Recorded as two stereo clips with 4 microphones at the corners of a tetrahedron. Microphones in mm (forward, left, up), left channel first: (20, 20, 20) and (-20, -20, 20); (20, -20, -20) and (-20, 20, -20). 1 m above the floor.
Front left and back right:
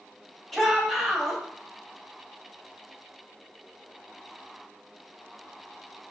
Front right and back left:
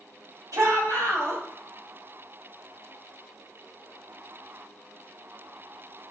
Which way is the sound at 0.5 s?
130° left.